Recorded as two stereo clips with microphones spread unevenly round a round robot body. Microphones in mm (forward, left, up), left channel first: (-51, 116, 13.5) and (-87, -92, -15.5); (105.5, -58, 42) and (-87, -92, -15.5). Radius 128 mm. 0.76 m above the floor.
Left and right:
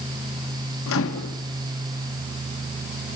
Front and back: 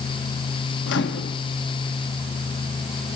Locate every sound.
0.9 s a microwave: 55° left, 1.1 m